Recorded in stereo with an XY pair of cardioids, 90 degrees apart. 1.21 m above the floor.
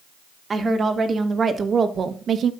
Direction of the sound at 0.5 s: 35° right.